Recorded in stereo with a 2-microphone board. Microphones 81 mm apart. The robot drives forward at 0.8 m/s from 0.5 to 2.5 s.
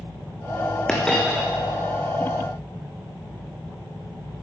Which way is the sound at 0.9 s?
10° left (ahead or behind).